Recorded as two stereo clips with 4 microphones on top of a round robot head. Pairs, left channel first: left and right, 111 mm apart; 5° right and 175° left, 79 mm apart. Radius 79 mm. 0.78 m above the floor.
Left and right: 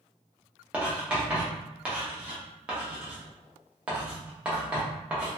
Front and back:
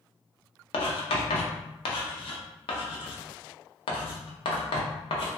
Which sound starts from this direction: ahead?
Writing, at 0.7 s.